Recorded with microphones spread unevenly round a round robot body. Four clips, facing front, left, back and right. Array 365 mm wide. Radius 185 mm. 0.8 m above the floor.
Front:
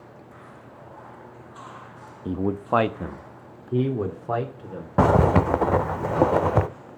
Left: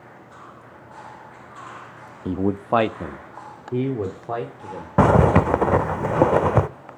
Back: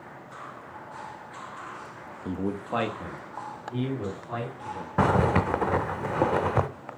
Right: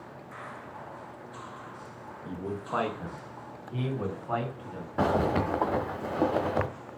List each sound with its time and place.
2.2 s a man speaking: 80° left, 0.7 m; by 4.9 s 40° left, 2.5 m
5.0 s a zipper: 85° left, 0.7 m